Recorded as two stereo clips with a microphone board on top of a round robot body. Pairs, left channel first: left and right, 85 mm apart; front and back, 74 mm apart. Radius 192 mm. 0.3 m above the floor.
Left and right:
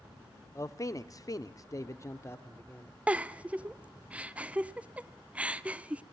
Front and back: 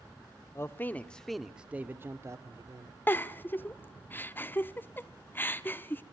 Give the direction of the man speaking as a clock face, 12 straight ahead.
10 o'clock.